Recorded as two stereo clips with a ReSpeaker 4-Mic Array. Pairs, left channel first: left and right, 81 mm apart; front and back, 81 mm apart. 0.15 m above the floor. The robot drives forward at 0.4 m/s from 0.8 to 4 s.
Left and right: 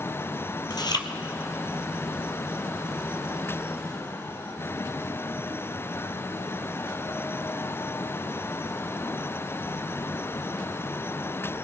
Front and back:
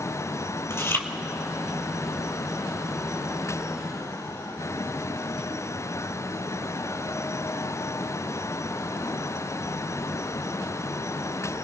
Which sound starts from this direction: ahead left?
Chewing, at 0.7 s.